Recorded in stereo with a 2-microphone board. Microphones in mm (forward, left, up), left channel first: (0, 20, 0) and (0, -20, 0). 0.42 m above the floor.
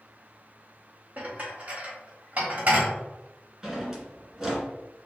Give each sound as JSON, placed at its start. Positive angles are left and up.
{"t": 1.2, "sound": "dishes clattering", "side_deg": -40, "distance_m": 1.3}
{"t": 3.6, "sound": "a drawer", "side_deg": -10, "distance_m": 1.4}